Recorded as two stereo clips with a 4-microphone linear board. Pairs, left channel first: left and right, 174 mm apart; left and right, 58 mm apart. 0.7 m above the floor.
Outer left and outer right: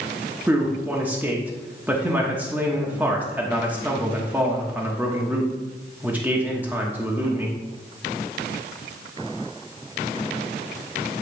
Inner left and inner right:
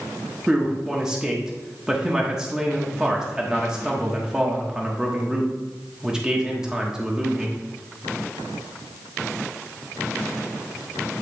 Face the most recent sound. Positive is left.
turn(degrees=-10)  # may be behind; listen again after turning